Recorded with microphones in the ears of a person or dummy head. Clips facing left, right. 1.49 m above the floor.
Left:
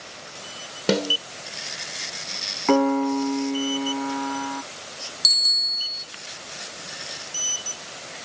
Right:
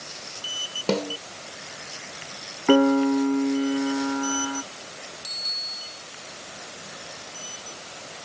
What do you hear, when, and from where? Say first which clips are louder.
0.9 s a snare drum: left 2 dB; 20° left (ahead or behind)
2.7 s a piano: right 2 dB; 15° right (ahead or behind)
5.2 s a bicycle bell: right 1 dB; 85° left